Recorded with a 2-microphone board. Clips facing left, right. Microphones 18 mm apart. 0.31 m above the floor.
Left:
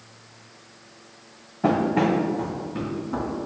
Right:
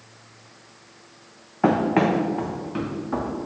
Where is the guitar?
No guitar in this recording.